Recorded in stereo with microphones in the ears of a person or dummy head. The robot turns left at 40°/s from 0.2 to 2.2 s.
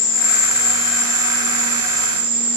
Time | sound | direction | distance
0.0 | an insect | 75° left | 1.0 m